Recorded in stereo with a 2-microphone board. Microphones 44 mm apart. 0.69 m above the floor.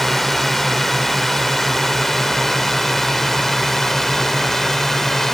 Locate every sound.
0.0 s a drone: 5° left (ahead or behind)